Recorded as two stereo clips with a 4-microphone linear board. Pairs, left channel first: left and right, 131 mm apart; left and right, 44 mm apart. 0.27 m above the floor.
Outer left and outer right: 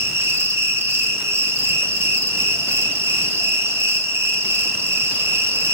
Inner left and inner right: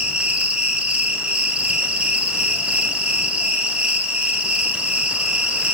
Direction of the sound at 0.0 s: 20° right (ahead or behind).